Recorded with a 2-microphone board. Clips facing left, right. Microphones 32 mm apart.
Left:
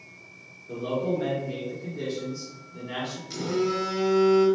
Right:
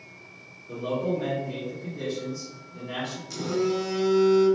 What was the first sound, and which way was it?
A man speaking, 15° left (ahead or behind).